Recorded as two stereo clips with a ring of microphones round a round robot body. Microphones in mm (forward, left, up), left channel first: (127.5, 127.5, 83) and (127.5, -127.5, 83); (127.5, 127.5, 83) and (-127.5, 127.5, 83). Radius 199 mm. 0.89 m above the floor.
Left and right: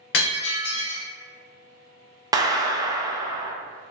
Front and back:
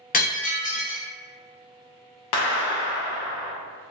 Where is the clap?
10° right, 0.6 m.